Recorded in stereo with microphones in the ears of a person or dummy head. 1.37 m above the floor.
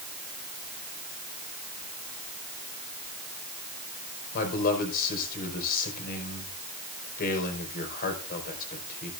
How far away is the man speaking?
About 5.5 m.